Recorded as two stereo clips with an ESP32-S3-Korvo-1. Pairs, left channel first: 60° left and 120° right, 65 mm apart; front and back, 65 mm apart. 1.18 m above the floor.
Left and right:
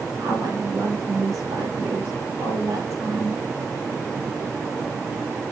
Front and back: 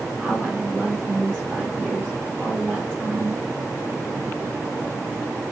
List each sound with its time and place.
0.2 s a woman speaking: 70° right, 4 m